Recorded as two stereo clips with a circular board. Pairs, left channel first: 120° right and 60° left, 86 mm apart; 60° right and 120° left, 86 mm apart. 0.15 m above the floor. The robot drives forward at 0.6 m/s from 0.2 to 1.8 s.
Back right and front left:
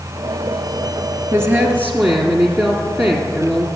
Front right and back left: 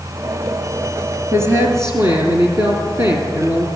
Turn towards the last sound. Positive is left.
turn(degrees=115)